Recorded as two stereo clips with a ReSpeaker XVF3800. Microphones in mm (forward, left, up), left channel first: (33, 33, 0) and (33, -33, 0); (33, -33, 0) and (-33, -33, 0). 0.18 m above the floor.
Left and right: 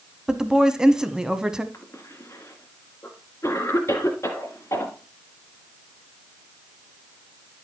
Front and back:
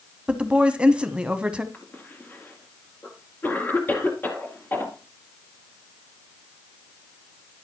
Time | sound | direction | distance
0.3 | a woman speaking | 145° right | 1.0 m
1.7 | a cough | 50° left | 2 m